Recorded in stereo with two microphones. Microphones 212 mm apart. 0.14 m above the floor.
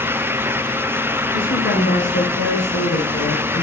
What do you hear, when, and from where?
1.3 s a woman speaking: 75° left (ahead or behind), 6 m; by 3.6 s 50° left (ahead or behind), 3 m